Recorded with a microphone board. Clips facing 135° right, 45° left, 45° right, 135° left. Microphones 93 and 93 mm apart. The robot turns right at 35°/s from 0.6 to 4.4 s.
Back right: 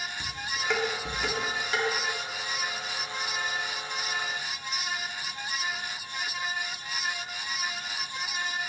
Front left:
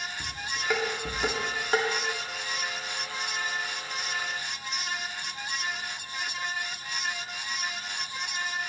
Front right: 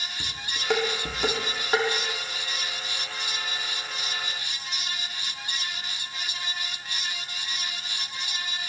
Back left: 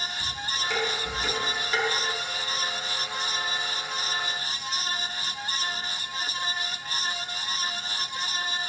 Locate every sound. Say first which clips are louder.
0.2 s dishes clattering: back right 1 dB, back left 3 dB; 40° right, 2 m; by 1.9 s 5° left, 2 m